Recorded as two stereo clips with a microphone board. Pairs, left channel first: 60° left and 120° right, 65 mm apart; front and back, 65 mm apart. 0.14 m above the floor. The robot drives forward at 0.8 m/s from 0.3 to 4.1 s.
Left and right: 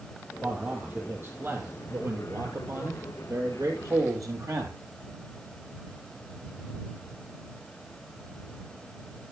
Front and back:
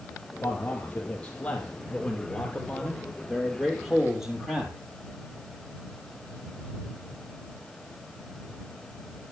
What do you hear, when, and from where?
0.4 s a man speaking: 60° right, 5 m; by 4.8 s 100° right, 4.5 m